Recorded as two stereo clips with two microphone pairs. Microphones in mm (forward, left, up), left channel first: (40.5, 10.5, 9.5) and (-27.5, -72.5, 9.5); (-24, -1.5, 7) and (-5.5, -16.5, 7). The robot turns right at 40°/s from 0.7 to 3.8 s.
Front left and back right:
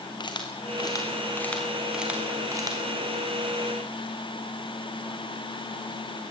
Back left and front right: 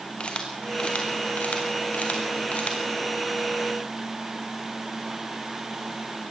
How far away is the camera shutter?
About 2.5 m.